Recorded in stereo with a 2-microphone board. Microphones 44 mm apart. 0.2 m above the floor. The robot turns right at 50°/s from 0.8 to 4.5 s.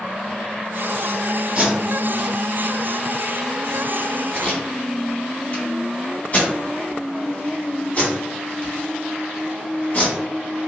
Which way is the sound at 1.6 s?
30° right (ahead or behind).